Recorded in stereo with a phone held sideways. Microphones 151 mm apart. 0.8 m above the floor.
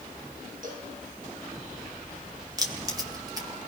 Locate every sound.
0.6 s a cowbell: 60° right (ahead or behind), 7 m
2.6 s keys jangling: 25° right (ahead or behind), 3.5 m